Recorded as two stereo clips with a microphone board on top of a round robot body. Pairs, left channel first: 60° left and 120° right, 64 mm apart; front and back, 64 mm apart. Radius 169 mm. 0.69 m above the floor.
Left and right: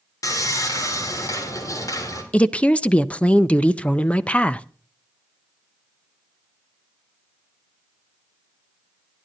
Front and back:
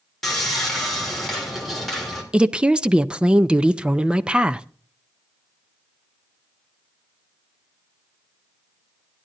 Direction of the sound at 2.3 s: 115° left.